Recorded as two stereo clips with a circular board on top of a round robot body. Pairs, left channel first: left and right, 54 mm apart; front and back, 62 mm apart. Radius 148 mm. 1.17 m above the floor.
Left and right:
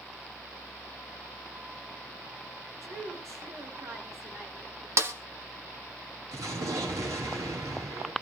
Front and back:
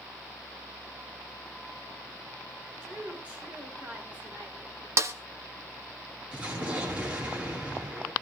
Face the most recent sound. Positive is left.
turn(degrees=-105)